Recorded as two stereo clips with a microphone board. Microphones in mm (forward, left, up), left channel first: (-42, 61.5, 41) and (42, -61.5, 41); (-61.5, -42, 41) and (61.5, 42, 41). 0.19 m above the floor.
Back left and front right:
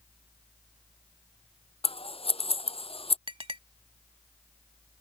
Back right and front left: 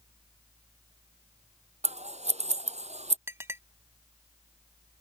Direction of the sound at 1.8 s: 75° left.